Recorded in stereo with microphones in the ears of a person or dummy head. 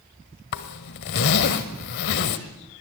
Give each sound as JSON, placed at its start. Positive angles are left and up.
{"t": 0.5, "sound": "a zipper", "side_deg": 55, "distance_m": 1.5}